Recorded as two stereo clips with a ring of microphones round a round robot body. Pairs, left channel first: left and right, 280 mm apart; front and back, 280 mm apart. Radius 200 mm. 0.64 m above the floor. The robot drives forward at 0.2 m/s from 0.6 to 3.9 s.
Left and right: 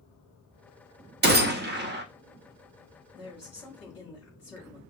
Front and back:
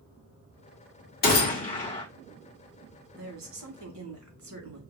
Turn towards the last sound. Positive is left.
turn(degrees=175)